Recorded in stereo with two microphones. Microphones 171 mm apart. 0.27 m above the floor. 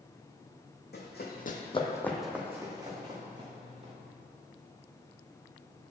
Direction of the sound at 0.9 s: 80° left.